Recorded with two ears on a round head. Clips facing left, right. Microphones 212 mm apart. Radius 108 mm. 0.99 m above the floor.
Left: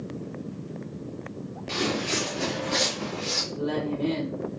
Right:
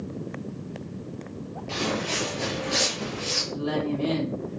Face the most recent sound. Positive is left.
turn(degrees=-75)  # may be behind; listen again after turning